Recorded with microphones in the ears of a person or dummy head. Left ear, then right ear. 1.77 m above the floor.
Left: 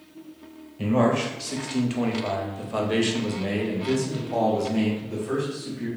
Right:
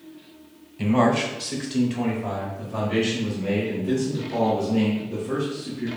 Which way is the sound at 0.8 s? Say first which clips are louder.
Right 2 dB; 5° right (ahead or behind).